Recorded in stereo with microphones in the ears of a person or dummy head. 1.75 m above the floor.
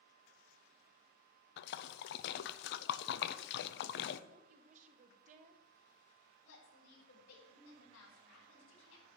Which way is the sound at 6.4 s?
85° left.